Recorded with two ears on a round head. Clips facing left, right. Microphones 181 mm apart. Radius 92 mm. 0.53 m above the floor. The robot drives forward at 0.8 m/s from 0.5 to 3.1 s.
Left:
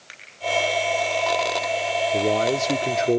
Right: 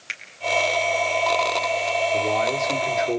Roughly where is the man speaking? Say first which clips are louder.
Left 5 dB; left.